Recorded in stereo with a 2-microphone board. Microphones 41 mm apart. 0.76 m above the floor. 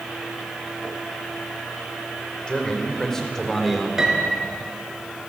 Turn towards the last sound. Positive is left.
turn(degrees=-15)  # may be behind; listen again after turning